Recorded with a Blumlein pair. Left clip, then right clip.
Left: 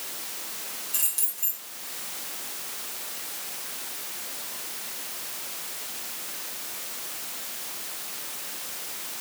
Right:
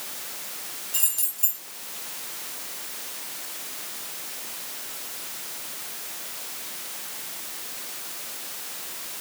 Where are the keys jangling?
25° left, 4 m.